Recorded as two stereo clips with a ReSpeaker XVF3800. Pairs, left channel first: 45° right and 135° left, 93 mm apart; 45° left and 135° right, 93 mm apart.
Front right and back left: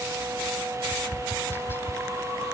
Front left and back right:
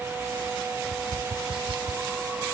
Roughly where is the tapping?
Right.